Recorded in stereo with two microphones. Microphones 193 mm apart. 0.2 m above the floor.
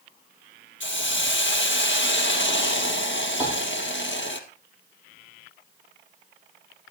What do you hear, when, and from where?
0.8 s a hiss: 80° left, 2 m
3.4 s a piano: 10° right (ahead or behind), 6.5 m